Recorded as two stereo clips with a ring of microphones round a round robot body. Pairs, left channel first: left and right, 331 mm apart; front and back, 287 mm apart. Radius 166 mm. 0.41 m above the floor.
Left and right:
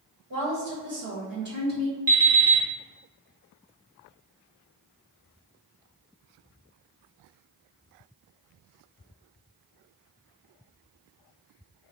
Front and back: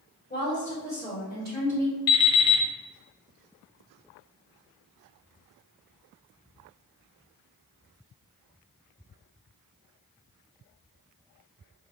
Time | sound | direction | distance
0.3 | a woman speaking | 65° right | 1.9 m
2.1 | an alarm clock | 15° right | 1.0 m